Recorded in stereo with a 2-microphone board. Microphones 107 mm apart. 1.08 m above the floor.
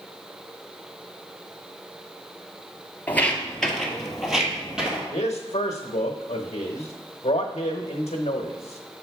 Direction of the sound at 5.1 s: 85° left.